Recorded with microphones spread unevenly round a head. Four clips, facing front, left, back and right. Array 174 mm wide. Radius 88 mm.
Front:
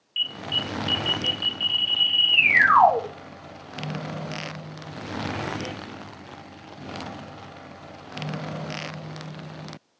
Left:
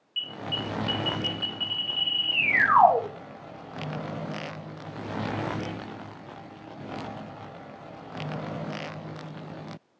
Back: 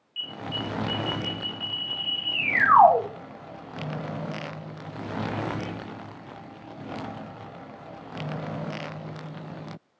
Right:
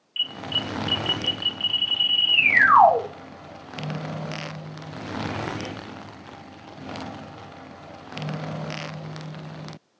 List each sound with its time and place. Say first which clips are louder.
0.2 s an alarm: right 2 dB, even; 140° right, 0.8 m